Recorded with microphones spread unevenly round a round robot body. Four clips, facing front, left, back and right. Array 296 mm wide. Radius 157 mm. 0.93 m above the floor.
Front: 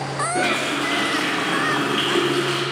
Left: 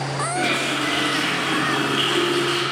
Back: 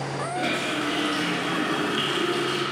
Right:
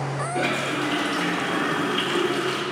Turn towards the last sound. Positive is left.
turn(degrees=-5)